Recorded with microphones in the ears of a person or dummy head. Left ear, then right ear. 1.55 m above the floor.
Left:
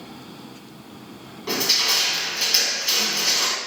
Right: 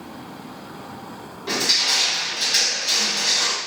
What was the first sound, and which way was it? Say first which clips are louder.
Crushing: right 1 dB; 5° left (ahead or behind).